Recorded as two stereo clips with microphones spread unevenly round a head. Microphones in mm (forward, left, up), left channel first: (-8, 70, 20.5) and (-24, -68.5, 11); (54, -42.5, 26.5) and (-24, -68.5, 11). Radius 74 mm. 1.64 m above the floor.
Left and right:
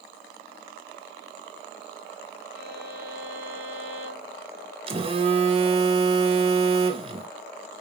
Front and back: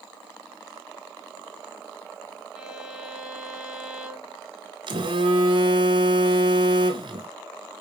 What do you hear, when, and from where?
2.5 s a violin: 70° right, 4 m
4.9 s a phone buzzing: 145° right, 1.4 m